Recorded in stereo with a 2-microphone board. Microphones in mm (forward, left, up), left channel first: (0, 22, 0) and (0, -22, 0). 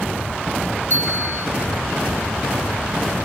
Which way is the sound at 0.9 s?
50° left (ahead or behind).